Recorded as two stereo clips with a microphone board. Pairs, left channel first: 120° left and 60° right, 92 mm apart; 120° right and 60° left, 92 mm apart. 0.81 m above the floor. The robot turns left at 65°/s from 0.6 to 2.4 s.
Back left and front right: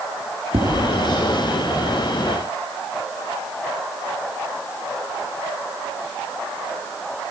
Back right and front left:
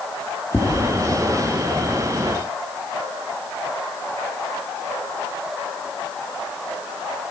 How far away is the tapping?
About 7.5 m.